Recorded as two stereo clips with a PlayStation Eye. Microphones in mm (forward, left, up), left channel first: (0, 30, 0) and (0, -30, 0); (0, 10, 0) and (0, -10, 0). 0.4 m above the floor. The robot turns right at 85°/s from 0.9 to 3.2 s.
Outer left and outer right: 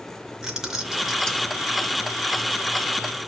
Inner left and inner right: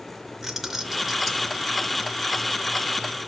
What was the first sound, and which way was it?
Keys jangling, 15° right.